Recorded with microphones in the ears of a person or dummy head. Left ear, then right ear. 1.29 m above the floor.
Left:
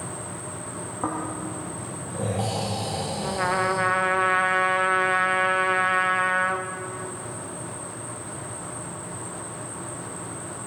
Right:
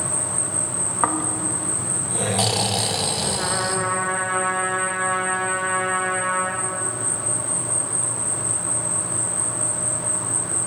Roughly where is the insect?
Right.